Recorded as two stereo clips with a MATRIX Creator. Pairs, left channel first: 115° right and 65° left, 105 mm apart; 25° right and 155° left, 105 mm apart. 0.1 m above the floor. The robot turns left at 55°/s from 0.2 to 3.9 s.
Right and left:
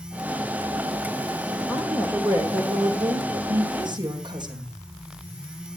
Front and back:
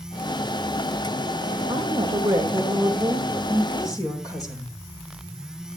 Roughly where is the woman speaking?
Behind left.